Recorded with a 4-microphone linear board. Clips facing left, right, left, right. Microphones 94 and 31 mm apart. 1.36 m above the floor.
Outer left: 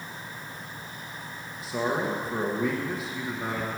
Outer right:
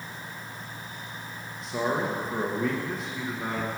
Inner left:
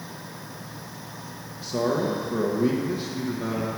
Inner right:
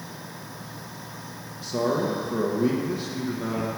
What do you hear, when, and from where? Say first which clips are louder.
1.6 s a man speaking: even, even; 5° left (ahead or behind), 1.3 m